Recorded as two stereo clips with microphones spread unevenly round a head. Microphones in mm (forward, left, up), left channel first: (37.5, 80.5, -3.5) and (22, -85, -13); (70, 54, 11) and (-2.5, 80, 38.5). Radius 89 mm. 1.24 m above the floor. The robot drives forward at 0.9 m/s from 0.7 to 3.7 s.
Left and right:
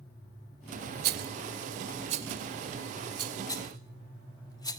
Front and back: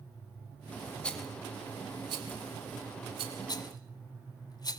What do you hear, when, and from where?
1.0 s a rattle: 85° right, 0.7 m; by 3.4 s 165° right, 2 m
3.5 s a rattle: 15° left, 1.7 m